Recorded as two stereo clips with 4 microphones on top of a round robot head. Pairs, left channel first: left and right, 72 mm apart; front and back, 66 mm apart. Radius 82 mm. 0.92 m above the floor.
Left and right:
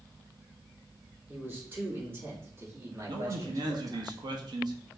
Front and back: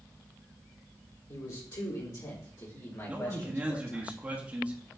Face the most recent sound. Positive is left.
turn(degrees=-110)